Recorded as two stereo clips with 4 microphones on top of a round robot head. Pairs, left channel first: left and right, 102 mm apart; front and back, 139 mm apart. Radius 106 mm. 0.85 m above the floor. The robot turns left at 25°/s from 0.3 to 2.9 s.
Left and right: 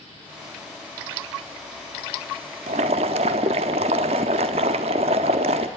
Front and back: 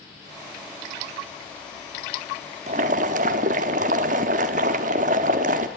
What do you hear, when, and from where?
2.7 s boiling: 130° right, 0.8 m; by 5.7 s 135° right, 0.8 m